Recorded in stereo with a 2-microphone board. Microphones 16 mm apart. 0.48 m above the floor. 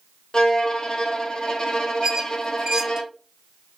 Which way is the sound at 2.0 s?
40° right (ahead or behind).